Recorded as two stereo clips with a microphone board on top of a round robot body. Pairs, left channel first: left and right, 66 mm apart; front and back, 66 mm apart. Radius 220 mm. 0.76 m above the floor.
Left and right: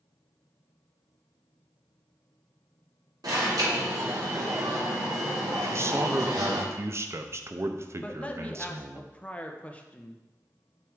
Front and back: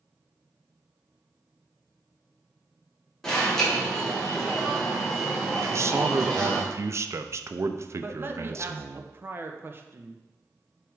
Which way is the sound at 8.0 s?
150° left.